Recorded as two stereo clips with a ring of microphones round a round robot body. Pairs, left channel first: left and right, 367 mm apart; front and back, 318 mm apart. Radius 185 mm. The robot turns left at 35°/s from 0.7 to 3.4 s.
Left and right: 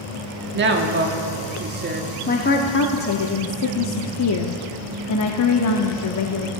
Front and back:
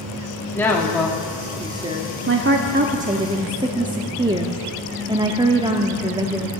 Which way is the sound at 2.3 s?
150° left.